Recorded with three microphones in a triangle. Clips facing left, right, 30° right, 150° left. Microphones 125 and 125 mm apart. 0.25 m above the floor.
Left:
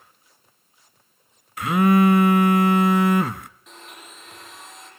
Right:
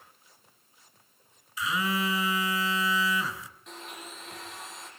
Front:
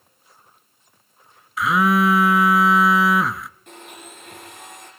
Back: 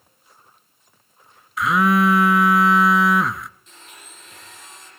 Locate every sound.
1.6 s a phone buzzing: 60° left, 0.7 m
3.7 s a blender: straight ahead, 6 m